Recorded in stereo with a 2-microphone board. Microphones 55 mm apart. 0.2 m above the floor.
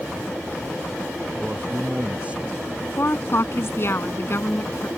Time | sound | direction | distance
1.4 | a man speaking | 20° right (ahead or behind) | ?
3.0 | a woman speaking | 50° left (ahead or behind) | ?